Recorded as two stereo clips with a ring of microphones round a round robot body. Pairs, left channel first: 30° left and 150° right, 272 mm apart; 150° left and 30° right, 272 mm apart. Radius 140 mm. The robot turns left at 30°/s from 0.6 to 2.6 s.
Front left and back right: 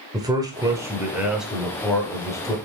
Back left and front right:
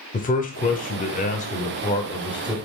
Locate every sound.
0.1 s a man speaking: 150° left, 0.9 m; by 2.5 s 90° left, 0.9 m